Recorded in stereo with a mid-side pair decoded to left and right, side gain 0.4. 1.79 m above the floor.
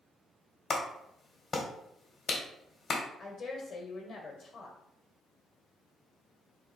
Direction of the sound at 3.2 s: 60° left.